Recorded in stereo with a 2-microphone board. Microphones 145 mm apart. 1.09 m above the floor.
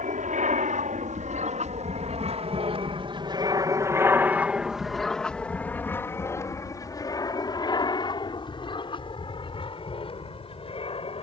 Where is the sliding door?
No sliding door in this recording.